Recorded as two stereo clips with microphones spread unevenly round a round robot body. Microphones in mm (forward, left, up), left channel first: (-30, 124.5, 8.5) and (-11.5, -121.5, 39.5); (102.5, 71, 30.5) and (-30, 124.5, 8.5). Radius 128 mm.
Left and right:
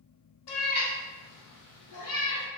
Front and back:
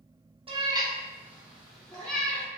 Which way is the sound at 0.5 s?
110° left.